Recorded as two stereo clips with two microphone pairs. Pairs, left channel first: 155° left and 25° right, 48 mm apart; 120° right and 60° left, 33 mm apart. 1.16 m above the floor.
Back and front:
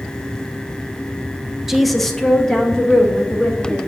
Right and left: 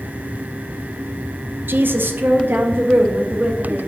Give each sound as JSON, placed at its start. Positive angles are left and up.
{"t": 1.7, "sound": "a woman speaking", "azimuth_deg": 65, "distance_m": 0.6}